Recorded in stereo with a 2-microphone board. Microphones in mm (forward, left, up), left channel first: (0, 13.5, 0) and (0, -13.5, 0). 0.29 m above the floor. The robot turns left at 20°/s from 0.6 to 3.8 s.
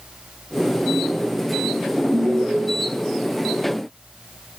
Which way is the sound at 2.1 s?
65° right (ahead or behind).